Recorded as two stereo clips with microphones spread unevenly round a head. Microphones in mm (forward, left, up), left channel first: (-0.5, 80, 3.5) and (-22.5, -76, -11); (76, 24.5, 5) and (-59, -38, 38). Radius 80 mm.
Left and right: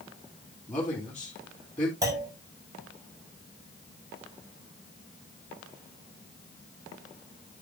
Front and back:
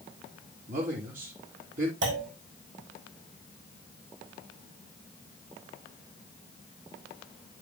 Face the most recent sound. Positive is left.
turn(degrees=-170)